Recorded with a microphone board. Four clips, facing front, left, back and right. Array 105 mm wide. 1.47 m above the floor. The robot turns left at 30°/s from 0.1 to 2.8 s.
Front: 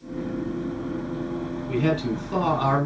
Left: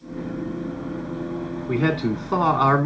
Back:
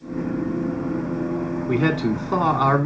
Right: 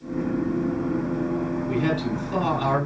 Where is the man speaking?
160° left, 2.5 m; by 2.9 s 125° left, 2.5 m.